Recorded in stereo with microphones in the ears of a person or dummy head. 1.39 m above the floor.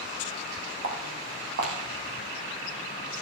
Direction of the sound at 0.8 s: 60° right (ahead or behind).